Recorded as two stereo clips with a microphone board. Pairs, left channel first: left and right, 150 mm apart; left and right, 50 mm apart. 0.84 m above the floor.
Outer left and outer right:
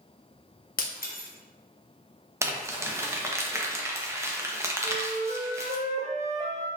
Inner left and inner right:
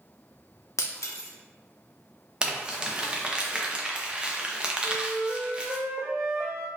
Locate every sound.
0.8 s breaking glass: 70° left (ahead or behind), 0.6 m
2.4 s crumpling: 20° right (ahead or behind), 0.6 m
4.8 s a flute: 50° right (ahead or behind), 0.6 m